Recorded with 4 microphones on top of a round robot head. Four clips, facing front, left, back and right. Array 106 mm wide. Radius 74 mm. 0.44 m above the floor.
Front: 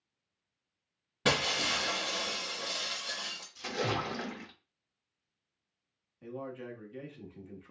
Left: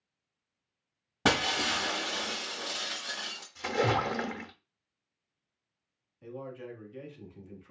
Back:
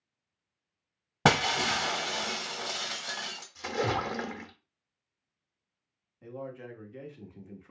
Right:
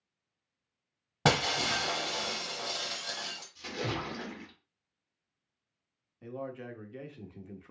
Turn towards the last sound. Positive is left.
turn(degrees=-100)